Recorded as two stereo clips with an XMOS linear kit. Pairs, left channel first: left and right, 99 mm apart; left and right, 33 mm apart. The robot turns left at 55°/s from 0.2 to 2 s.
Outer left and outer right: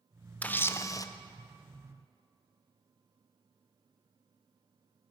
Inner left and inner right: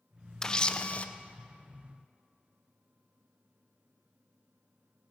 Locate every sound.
0.4 s a camera shutter: 160° left, 0.5 m; by 1.1 s 125° left, 0.5 m